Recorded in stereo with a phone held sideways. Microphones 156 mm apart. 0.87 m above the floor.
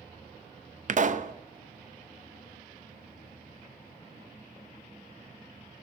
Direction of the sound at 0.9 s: 55° right (ahead or behind).